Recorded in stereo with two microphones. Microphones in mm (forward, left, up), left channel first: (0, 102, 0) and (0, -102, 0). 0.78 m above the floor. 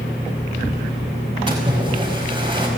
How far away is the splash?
About 5 m.